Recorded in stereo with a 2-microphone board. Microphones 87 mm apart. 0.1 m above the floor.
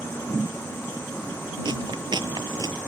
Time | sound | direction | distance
1.6 | chewing | 65° right (ahead or behind) | ?